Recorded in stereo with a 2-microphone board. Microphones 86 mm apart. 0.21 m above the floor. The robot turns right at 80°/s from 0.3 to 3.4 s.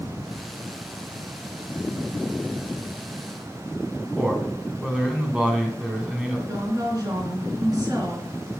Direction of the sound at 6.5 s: 45° right (ahead or behind).